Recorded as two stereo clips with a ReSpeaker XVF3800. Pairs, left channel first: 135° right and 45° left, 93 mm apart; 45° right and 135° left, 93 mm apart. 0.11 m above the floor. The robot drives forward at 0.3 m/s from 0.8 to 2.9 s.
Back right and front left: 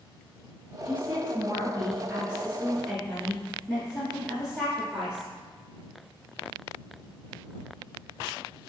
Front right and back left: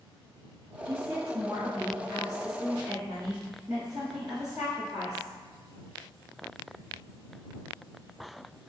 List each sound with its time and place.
0.8 s a woman speaking: 85° left, 1.2 m; by 5.3 s 130° left, 1.3 m